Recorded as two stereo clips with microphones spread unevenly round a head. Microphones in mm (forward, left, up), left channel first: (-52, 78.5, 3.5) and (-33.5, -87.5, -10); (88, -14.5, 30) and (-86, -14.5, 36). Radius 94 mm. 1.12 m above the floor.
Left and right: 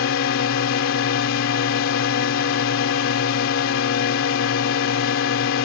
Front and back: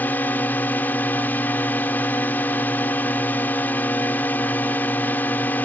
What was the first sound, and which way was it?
A drone, 80° left.